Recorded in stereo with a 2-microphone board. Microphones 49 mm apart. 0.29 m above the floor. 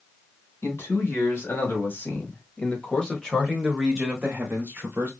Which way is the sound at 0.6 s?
60° left (ahead or behind).